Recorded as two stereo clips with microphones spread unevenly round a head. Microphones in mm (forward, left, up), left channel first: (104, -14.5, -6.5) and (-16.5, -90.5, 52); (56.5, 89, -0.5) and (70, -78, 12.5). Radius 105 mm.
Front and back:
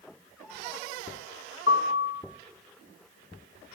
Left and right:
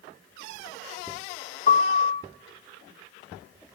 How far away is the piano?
About 0.9 m.